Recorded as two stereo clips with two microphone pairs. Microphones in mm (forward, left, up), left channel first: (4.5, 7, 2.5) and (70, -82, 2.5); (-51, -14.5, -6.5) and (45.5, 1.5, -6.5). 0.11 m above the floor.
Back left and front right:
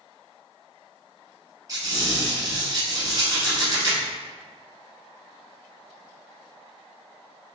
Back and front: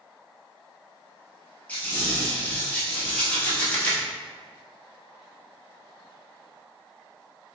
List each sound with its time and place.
1.7 s a squeak: 100° right, 1.7 m